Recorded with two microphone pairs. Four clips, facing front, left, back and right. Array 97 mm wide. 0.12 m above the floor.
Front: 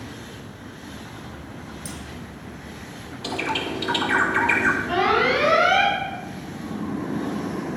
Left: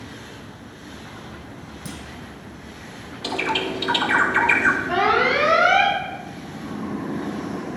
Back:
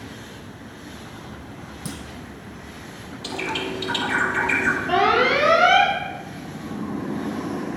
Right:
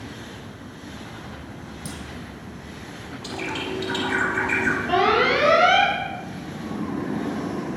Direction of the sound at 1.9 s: 175° left.